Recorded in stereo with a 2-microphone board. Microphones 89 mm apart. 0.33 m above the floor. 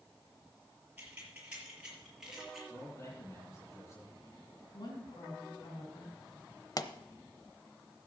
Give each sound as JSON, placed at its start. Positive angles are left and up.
{"t": 1.0, "sound": "keys jangling", "side_deg": -20, "distance_m": 5.0}
{"t": 2.7, "sound": "a man speaking", "side_deg": 35, "distance_m": 8.5}
{"t": 4.7, "sound": "a woman speaking", "side_deg": 50, "distance_m": 3.5}
{"t": 6.8, "sound": "a pop", "side_deg": 45, "distance_m": 0.7}